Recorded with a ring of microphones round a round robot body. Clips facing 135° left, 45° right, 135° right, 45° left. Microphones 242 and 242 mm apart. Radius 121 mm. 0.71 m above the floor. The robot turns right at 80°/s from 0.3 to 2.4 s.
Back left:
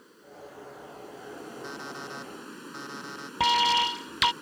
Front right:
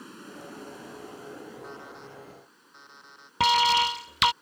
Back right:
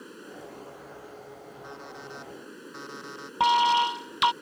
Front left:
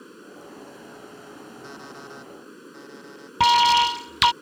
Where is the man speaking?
I don't hear a man speaking.